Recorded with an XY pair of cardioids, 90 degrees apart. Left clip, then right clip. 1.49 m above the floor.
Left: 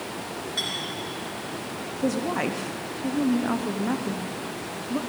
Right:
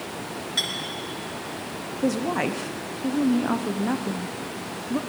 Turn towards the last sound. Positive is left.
turn(degrees=-15)